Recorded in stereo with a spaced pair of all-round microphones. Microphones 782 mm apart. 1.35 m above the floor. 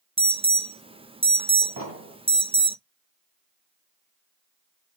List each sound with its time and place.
0.2 s an alarm: 10° right (ahead or behind), 0.5 m
1.8 s an explosion: 15° right (ahead or behind), 2 m